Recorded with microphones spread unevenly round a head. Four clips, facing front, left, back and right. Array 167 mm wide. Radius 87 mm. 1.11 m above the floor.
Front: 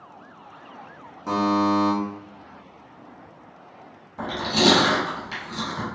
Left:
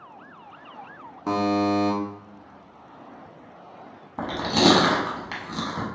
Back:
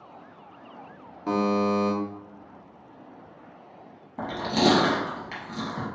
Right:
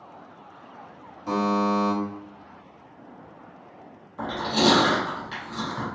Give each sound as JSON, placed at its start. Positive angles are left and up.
{"t": 1.3, "sound": "a buzzer", "azimuth_deg": 95, "distance_m": 1.2}
{"t": 4.2, "sound": "chewing", "azimuth_deg": 110, "distance_m": 1.4}